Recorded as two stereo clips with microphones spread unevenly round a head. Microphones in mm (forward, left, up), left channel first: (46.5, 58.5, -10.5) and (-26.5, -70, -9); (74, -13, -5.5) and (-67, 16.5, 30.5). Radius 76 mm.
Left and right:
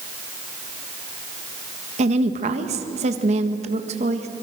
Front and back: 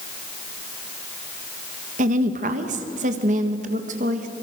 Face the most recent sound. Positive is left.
turn(degrees=-165)